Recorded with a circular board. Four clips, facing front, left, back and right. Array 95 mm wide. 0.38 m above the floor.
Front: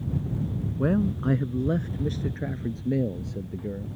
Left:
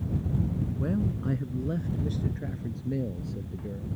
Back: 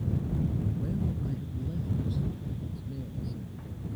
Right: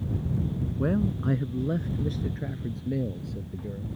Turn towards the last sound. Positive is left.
turn(degrees=0)